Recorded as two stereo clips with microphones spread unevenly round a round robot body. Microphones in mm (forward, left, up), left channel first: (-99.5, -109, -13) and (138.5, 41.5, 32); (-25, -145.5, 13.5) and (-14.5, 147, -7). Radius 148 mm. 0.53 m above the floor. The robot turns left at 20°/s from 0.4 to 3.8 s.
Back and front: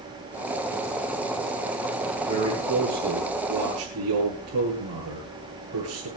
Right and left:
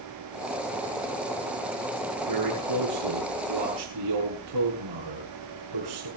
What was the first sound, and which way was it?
A man speaking, 110° left.